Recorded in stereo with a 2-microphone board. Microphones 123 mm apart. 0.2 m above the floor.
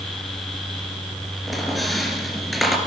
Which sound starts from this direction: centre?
A squeak, at 1.5 s.